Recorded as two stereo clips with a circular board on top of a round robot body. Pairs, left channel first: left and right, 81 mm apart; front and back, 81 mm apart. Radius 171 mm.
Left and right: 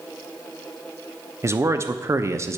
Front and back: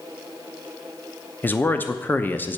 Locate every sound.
1.4 s a man speaking: 55° right, 1.0 m